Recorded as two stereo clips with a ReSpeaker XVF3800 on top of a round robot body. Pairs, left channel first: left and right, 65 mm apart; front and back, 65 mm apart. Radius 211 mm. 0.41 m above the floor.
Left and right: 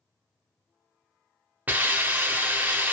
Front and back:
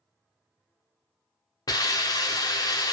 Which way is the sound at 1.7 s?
20° right.